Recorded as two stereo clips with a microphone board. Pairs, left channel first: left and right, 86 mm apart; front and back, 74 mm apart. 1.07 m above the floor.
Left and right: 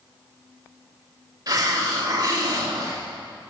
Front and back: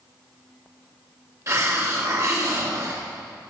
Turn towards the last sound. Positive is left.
turn(degrees=-135)